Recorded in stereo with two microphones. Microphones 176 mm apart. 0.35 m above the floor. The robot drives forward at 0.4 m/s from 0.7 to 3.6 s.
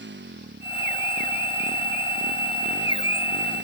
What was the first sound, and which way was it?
A motorcycle, 90° right.